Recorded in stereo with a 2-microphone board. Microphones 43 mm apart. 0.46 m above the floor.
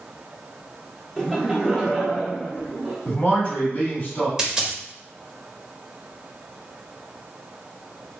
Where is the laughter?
5° left (ahead or behind), 0.8 m; by 3.0 s 25° right (ahead or behind), 1.1 m.